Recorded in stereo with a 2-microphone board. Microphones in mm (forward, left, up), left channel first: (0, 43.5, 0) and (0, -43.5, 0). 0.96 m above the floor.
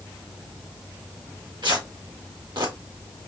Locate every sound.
1.6 s tearing paper: 60° right (ahead or behind), 1.4 m